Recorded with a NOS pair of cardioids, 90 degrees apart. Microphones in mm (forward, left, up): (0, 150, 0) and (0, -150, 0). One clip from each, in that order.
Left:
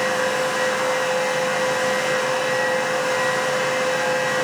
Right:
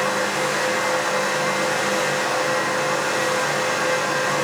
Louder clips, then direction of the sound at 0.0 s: Left 1 dB; 40° right.